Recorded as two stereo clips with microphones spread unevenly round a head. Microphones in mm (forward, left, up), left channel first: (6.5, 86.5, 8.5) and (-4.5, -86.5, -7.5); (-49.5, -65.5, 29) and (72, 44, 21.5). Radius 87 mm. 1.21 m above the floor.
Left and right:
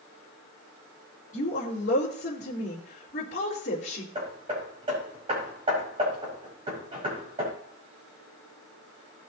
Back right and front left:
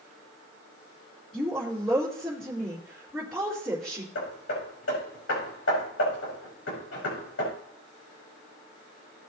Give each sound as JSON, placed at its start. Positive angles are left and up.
{"t": 1.3, "sound": "a woman speaking", "azimuth_deg": 135, "distance_m": 3.5}
{"t": 4.2, "sound": "hammering", "azimuth_deg": -155, "distance_m": 5.0}